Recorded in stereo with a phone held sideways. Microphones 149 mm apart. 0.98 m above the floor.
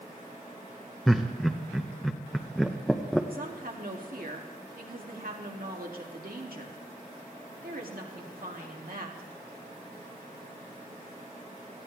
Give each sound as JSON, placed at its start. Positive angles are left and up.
{"t": 1.1, "sound": "laughter", "side_deg": 0, "distance_m": 0.7}
{"t": 3.3, "sound": "a woman speaking", "side_deg": -75, "distance_m": 2.0}